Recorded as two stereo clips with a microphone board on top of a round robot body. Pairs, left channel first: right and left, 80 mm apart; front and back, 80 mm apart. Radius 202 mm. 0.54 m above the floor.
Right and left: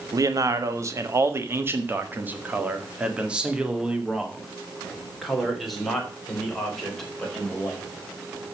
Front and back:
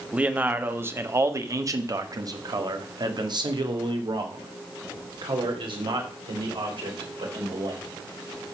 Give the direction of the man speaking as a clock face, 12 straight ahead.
8 o'clock.